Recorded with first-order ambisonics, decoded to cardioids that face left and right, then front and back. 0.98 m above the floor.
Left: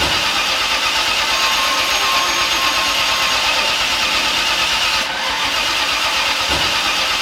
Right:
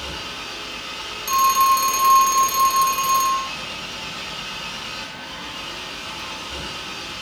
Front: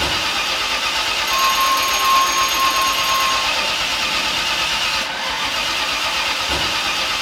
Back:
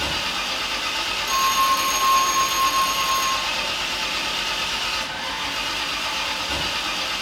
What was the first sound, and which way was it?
An engine running, 70° left.